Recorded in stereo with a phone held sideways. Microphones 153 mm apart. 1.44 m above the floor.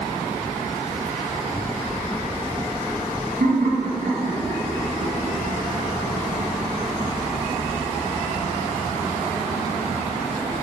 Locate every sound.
3.4 s laughter: 80° right, 2 m; by 5.4 s 55° right (ahead or behind), 2.5 m